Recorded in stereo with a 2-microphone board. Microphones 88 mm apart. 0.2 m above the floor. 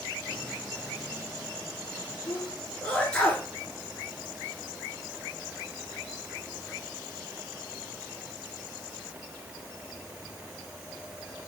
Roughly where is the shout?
I don't hear a shout.